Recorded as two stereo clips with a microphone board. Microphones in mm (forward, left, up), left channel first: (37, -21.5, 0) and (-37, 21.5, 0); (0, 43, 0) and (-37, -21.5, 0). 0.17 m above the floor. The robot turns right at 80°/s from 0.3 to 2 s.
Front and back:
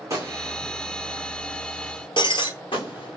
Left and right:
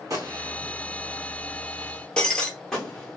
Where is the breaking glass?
15° right, 1.4 m.